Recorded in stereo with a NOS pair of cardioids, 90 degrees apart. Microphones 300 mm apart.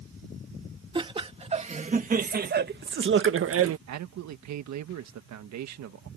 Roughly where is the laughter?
Ahead.